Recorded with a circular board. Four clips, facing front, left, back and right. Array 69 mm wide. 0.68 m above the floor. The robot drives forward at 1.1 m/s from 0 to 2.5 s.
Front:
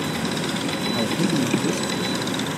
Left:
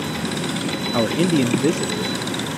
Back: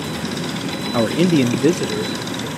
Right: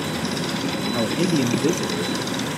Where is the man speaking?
145° left, 0.6 m; by 2.5 s 175° left, 2 m.